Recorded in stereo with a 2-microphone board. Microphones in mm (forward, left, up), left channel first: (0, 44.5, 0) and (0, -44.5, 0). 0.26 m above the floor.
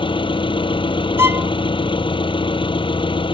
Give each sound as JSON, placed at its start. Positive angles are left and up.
{"t": 0.0, "sound": "an engine running", "side_deg": 70}
{"t": 1.2, "sound": "a violin", "side_deg": -30}